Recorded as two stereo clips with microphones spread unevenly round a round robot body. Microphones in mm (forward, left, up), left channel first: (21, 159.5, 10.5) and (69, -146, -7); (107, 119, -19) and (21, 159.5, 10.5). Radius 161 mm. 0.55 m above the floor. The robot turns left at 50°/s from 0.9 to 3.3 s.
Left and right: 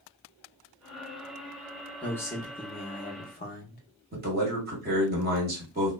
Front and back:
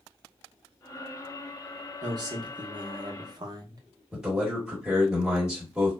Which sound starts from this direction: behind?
A man speaking, at 2.0 s.